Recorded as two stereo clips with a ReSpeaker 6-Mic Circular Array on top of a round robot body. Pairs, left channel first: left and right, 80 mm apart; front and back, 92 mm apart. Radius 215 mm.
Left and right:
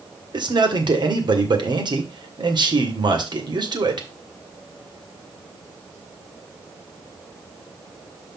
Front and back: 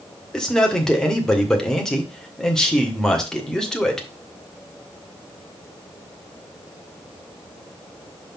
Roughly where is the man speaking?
Right.